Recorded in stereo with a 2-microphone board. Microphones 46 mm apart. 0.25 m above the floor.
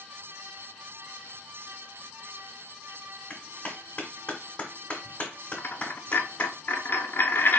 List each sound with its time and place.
3.3 s a clap: 30° left (ahead or behind), 1.7 m
5.6 s a dropped coin: 45° left (ahead or behind), 0.7 m